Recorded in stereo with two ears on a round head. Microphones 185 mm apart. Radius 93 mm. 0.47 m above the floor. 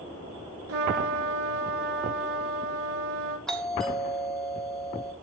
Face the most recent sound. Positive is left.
turn(degrees=5)  # may be behind; listen again after turning